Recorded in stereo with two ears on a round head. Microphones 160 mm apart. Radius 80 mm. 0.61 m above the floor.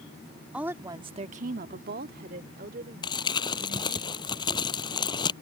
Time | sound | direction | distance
0.5 | a woman speaking | 5° right (ahead or behind) | ?
3.0 | crumpling | 25° left (ahead or behind) | ?